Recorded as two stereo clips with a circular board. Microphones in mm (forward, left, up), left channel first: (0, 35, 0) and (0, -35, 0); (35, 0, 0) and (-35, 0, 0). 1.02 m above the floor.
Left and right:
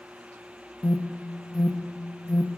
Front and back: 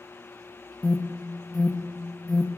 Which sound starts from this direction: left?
An alarm, at 0.8 s.